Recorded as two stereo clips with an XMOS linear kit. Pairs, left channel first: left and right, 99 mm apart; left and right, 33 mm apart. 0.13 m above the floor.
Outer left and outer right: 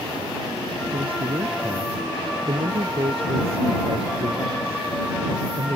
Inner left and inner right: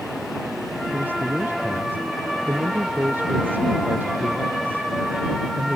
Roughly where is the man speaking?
Right.